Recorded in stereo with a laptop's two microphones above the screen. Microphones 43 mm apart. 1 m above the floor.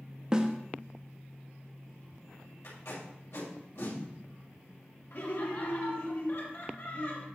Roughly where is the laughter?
Left.